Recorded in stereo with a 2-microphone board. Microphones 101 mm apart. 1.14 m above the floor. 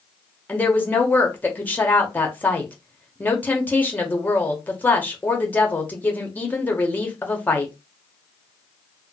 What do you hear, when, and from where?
0.5 s a woman speaking: 15° left (ahead or behind), 1.0 m